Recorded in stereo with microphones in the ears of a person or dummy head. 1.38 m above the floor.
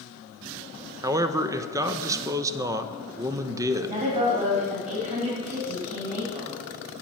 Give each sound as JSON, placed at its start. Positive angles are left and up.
{"t": 1.0, "sound": "a man speaking", "side_deg": -15, "distance_m": 0.5}
{"t": 3.8, "sound": "a woman speaking", "side_deg": -35, "distance_m": 2.0}